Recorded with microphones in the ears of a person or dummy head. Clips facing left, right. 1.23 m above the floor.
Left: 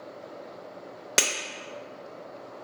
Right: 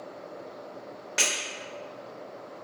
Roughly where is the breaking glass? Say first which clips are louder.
Left 4 dB; left.